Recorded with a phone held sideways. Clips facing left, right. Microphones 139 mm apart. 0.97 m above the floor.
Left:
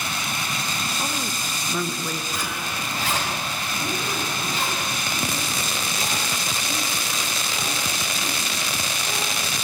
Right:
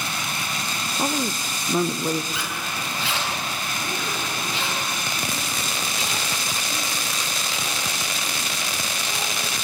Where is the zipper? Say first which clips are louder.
Left 1 dB; 45° left (ahead or behind), 4 m.